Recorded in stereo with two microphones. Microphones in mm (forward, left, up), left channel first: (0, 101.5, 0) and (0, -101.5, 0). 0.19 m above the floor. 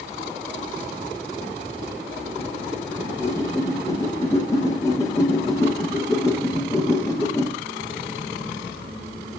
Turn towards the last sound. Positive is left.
turn(degrees=15)  # may be behind; listen again after turning